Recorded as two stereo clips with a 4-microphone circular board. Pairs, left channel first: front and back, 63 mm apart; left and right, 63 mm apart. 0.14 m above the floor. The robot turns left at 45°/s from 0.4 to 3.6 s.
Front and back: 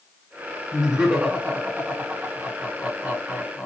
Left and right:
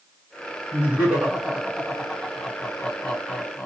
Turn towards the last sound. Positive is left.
turn(degrees=115)